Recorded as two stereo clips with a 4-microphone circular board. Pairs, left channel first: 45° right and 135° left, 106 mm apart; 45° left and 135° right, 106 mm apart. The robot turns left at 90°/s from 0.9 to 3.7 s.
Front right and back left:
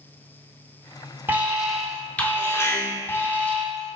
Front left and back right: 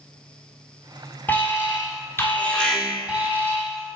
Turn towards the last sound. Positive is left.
turn(degrees=-125)